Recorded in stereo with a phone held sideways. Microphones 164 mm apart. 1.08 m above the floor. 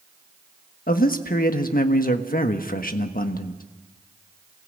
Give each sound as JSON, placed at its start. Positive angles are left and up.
{"t": 0.9, "sound": "a man speaking", "side_deg": 60, "distance_m": 1.4}